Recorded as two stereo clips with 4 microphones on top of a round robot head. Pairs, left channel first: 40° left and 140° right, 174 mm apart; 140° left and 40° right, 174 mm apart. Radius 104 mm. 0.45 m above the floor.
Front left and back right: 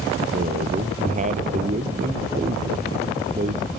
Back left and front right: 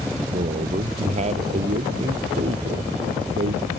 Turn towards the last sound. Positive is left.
turn(degrees=-95)